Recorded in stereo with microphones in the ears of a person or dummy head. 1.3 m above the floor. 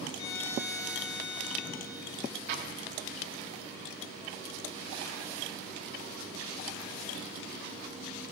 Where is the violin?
75° left (ahead or behind), 6 m.